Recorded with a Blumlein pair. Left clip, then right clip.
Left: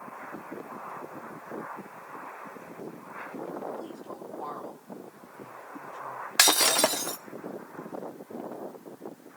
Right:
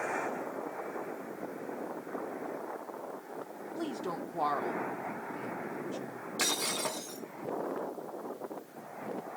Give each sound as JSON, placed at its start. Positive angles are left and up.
{"t": 3.8, "sound": "a woman speaking", "azimuth_deg": -35, "distance_m": 2.5}
{"t": 6.4, "sound": "breaking glass", "azimuth_deg": 45, "distance_m": 1.2}